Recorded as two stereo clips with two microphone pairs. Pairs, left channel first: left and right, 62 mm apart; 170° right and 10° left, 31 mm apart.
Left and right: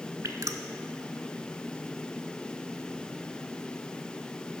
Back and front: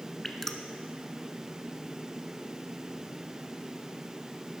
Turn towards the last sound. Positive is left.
turn(degrees=-90)